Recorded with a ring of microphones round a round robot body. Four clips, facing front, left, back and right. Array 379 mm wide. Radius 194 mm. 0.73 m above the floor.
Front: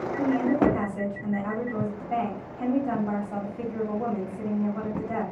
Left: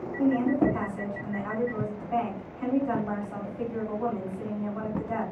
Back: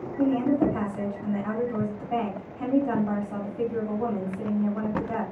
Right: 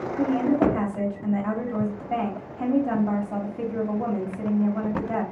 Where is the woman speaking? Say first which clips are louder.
Right 2 dB, back 1 dB; 90° right, 2 m.